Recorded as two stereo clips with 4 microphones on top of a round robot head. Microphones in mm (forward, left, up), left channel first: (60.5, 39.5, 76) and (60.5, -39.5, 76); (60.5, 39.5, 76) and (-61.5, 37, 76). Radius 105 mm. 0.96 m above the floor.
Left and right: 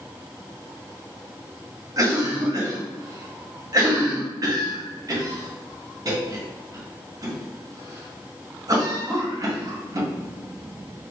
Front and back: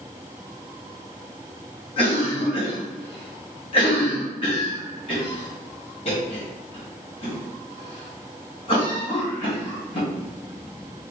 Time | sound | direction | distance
2.0 | a cough | 50° right | 2 m